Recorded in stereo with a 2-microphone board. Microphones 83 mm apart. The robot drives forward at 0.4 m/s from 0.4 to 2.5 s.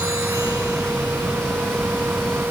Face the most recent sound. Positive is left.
No sound to turn to.